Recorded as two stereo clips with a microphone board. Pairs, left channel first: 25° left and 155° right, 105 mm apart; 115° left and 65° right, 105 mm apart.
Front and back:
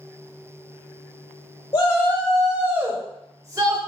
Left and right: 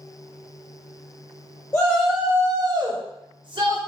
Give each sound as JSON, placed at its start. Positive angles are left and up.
{"t": 1.7, "sound": "a shout", "azimuth_deg": 45, "distance_m": 0.6}